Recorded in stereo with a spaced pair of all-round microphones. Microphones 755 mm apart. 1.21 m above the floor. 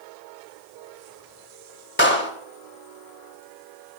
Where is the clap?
15° left (ahead or behind), 2.5 m.